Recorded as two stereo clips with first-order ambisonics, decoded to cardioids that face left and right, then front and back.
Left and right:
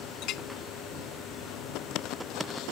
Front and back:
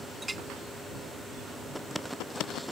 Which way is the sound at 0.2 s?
100° left.